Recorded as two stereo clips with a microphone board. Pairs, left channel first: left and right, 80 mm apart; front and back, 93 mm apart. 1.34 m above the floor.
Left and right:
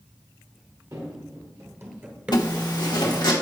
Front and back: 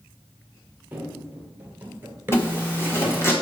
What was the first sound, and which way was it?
Running footsteps, 115° right.